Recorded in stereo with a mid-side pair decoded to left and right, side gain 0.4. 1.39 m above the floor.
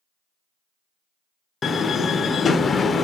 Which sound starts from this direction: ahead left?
A door slam, at 1.6 s.